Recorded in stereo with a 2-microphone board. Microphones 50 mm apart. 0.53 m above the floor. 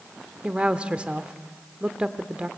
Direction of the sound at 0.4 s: 20° right (ahead or behind).